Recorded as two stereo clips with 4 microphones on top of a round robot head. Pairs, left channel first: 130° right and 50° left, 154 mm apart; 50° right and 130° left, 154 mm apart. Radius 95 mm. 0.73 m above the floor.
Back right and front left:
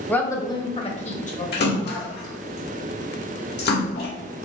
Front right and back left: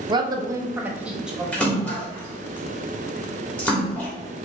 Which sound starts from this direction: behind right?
A splash, at 1.5 s.